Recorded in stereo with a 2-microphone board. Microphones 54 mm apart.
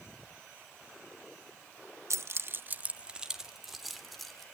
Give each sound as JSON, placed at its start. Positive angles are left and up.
{"t": 2.1, "sound": "keys jangling", "side_deg": -60, "distance_m": 0.8}